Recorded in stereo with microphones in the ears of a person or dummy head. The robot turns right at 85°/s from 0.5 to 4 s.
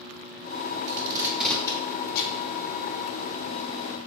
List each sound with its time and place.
0.9 s tape being pulled: 50° right (ahead or behind), 0.7 m; by 2.4 s 70° left (ahead or behind), 0.7 m